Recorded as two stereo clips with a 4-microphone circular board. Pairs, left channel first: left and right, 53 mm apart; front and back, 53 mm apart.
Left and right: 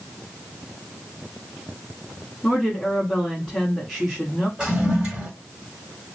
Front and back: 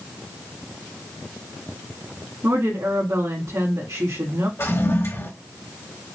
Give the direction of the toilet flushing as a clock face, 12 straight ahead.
1 o'clock.